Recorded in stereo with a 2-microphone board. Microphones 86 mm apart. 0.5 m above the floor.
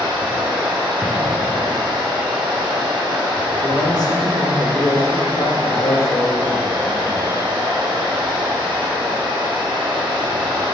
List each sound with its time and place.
0.0 s running water: 65° right (ahead or behind), 1.6 m
1.0 s an explosion: 15° right (ahead or behind), 1.3 m
3.6 s a man speaking: 50° left (ahead or behind), 1.3 m